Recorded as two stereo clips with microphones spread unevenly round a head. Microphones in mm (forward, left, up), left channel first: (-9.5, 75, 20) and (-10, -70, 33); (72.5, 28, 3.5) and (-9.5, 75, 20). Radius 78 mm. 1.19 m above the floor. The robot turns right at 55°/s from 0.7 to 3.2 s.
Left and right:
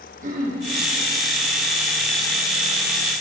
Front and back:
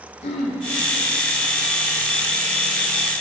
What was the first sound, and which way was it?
Throat clearing, 50° right.